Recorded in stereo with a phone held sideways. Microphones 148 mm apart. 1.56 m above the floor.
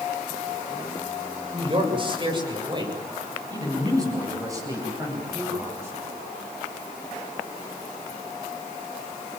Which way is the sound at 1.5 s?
40° right (ahead or behind).